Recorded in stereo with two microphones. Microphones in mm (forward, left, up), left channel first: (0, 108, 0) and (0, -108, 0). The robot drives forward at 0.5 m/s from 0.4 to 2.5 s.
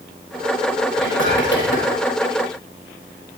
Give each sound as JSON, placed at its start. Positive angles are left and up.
{"t": 1.0, "sound": "whispering", "side_deg": 60, "distance_m": 3.0}